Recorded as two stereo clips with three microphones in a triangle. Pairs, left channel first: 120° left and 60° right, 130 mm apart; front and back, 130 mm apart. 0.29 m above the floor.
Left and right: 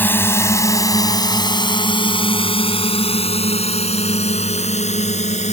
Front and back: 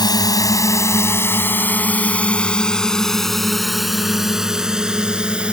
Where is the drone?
50° left; by 5.5 s 100° left.